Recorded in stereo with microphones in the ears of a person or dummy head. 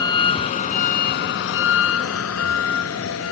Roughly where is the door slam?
I don't hear a door slam.